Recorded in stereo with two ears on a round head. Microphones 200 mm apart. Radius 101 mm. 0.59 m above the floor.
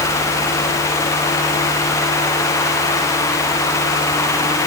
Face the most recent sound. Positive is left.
No sound to turn to.